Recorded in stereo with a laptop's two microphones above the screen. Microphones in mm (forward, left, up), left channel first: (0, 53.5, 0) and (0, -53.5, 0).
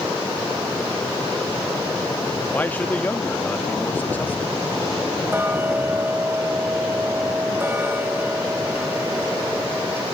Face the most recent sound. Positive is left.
turn(degrees=-20)  # may be behind; listen again after turning